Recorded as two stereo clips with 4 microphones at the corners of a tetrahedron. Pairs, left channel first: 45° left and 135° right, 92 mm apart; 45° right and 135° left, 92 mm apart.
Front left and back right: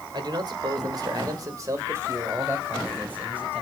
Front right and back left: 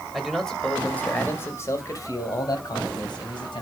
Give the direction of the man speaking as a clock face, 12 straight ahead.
5 o'clock.